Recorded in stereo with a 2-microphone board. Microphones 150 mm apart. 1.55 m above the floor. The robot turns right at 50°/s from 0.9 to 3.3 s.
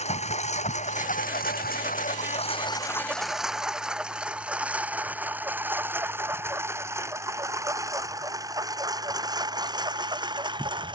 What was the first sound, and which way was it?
A lawn mower, 50° left (ahead or behind).